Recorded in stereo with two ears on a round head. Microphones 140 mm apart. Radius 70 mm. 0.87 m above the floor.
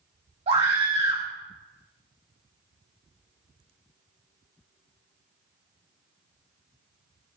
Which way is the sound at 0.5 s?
45° right (ahead or behind).